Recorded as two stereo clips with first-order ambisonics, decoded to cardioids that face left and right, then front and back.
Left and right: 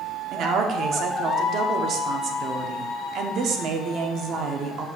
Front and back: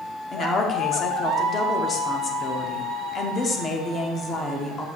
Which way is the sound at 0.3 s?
55° right.